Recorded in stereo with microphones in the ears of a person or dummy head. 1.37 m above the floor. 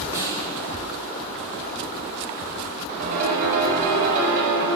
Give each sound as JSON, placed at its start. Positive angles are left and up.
{"t": 0.1, "sound": "a snare drum", "side_deg": -25, "distance_m": 4.0}
{"t": 3.0, "sound": "a piano", "side_deg": -50, "distance_m": 4.5}